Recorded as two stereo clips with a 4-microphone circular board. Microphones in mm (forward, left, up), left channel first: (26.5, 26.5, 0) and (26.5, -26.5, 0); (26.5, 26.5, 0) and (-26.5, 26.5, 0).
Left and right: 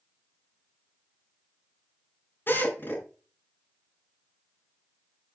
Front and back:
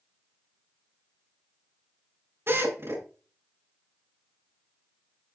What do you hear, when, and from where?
2.5 s a drill: 140° left, 8 m